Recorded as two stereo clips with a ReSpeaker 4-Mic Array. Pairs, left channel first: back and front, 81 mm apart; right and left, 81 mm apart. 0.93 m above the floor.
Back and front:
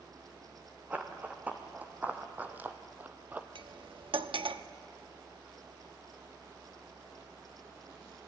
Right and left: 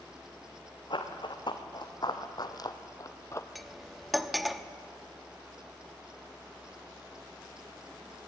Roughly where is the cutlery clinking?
Ahead.